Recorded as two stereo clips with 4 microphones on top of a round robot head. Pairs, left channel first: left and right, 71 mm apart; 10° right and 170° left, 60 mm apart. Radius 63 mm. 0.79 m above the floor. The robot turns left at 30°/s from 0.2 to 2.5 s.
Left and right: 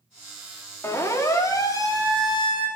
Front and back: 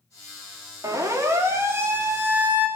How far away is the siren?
About 3 m.